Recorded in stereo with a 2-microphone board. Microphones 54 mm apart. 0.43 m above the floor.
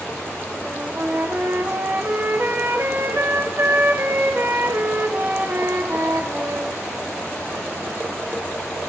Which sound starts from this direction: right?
A flute, at 0.6 s.